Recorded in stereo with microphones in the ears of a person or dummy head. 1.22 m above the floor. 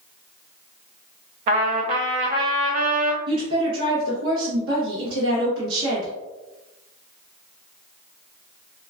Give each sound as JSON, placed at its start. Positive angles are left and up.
{"t": 1.5, "sound": "a trumpet", "side_deg": -30, "distance_m": 0.6}
{"t": 3.3, "sound": "a woman speaking", "side_deg": -70, "distance_m": 1.0}